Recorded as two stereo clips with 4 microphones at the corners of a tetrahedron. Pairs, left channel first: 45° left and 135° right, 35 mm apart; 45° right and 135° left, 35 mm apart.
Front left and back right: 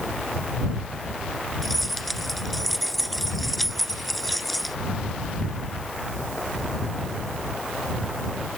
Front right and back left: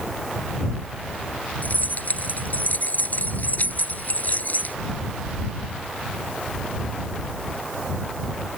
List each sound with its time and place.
1.6 s keys jangling: 40° right